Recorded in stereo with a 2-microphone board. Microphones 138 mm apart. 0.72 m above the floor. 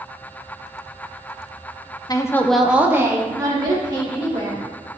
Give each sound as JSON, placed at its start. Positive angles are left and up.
{"t": 2.1, "sound": "a woman speaking", "side_deg": 30, "distance_m": 0.7}